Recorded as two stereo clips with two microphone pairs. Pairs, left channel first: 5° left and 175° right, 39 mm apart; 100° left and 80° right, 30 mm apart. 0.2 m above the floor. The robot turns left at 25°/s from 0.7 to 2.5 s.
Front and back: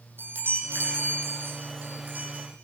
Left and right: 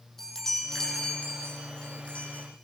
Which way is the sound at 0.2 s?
175° left.